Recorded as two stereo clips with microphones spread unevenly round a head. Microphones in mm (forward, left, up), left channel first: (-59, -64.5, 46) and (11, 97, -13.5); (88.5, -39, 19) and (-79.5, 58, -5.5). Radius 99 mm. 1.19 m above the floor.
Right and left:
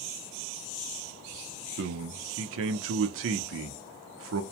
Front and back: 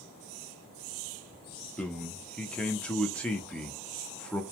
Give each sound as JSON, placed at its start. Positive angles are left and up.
{"t": 1.8, "sound": "a man speaking", "azimuth_deg": 55, "distance_m": 0.6}